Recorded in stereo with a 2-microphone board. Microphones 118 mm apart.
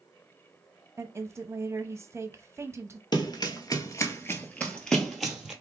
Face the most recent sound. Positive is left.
turn(degrees=-5)  # may be behind; listen again after turning